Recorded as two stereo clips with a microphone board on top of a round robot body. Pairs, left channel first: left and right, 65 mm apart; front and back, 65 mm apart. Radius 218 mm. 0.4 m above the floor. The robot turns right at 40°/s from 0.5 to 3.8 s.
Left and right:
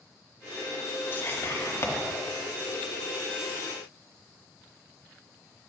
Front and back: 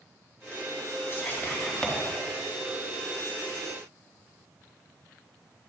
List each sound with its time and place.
1.1 s whispering: 45° left, 2 m; by 1.9 s 75° left, 2 m